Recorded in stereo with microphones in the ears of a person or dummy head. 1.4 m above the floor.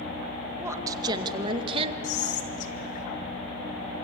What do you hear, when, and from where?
0.6 s a woman speaking: 20° right (ahead or behind), 2 m; by 1.9 s 40° right (ahead or behind), 1.7 m
2.0 s whispering: 45° left (ahead or behind), 2.5 m